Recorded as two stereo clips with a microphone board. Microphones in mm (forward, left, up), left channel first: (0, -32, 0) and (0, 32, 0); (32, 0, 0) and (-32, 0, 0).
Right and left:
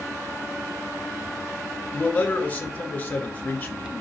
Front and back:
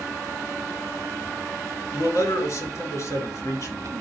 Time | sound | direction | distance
1.9 | a man speaking | 30° right | 2.5 m